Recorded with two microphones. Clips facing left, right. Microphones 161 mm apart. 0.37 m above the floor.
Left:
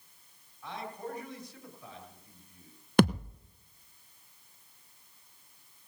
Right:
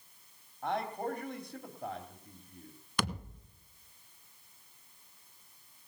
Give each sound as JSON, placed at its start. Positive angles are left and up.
{"t": 0.6, "sound": "a man speaking", "side_deg": -60, "distance_m": 2.5}
{"t": 3.0, "sound": "a thud", "side_deg": 60, "distance_m": 0.9}